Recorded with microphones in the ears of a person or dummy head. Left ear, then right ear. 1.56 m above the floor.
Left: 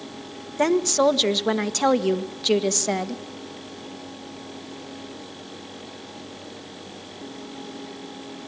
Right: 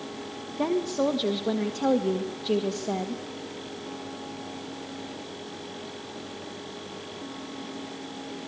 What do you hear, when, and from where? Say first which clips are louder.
0.6 s a woman speaking: left 7 dB; 65° left (ahead or behind), 1.5 m